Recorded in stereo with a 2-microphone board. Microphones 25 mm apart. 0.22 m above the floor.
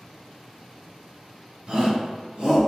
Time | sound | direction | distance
1.7 | a shout | 40° right (ahead or behind) | 1.2 m